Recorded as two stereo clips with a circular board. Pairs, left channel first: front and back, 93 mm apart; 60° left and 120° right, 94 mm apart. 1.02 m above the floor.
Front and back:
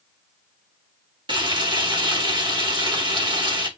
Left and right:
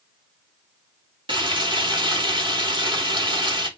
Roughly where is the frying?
Behind right.